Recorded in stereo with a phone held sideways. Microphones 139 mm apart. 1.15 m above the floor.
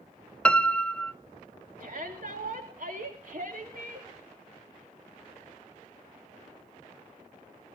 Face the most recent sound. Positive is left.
turn(degrees=-70)  # may be behind; listen again after turning